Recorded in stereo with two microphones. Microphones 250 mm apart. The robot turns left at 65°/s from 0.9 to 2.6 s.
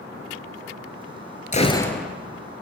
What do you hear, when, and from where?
1.5 s a gunshot: 30° left, 1.1 m; by 2.1 s 5° right, 1.1 m